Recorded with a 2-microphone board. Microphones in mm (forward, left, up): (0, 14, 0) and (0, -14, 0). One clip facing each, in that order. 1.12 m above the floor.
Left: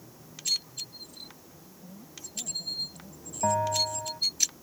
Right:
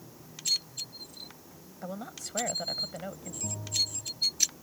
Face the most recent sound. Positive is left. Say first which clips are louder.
# left 7 dB
turn(degrees=75)  # may be behind; listen again after turning